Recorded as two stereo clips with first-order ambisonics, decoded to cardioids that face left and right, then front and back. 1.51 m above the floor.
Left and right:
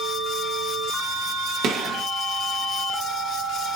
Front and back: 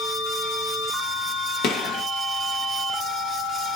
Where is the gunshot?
45° right, 0.9 m.